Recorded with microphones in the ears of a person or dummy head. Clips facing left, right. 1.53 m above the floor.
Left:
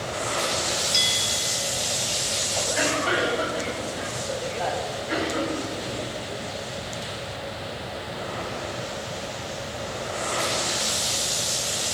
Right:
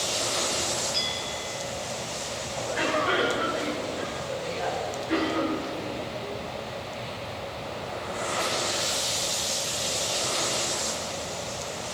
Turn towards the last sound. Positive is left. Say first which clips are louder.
# left 1 dB
turn(degrees=55)  # may be behind; listen again after turning